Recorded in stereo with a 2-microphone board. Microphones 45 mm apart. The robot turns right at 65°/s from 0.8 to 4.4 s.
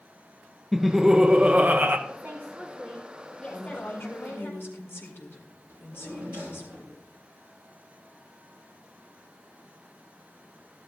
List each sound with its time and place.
0.7 s laughter: 175° right, 0.5 m; by 2.0 s 100° right, 0.5 m
2.1 s a woman speaking: 65° right, 3.5 m; by 4.5 s 85° left, 3.5 m
3.5 s a woman speaking: 55° left, 2.0 m; by 6.7 s 115° left, 2.0 m
5.7 s a drawer: 25° right (ahead or behind), 6 m